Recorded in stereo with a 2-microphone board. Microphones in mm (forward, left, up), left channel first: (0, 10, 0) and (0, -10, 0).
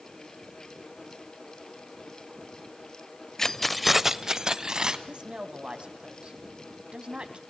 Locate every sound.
3.4 s keys jangling: 25° left (ahead or behind), 0.6 m; by 5.0 s 40° right (ahead or behind), 1.3 m
5.1 s a woman speaking: 55° right (ahead or behind), 2 m